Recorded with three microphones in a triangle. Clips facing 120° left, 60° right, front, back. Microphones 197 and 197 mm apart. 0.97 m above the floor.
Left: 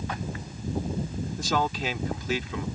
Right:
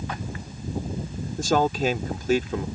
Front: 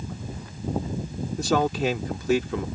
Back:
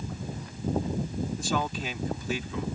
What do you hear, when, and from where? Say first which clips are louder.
1.4 s a man speaking: right 7 dB, front 12 dB; 20° right